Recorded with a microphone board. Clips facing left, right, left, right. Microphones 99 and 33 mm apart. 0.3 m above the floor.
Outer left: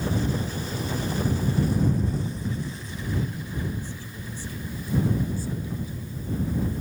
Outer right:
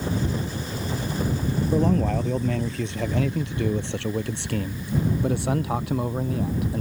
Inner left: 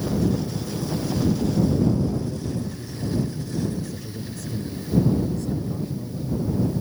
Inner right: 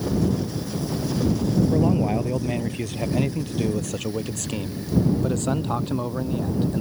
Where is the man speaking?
75° right (ahead or behind).